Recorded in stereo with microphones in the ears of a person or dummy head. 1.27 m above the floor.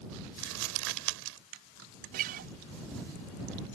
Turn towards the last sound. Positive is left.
turn(degrees=-45)  # may be behind; listen again after turning